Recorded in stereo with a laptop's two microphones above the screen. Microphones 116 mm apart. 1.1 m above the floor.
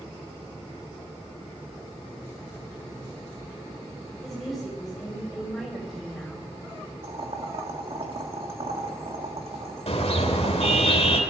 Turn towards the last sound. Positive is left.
turn(degrees=65)  # may be behind; listen again after turning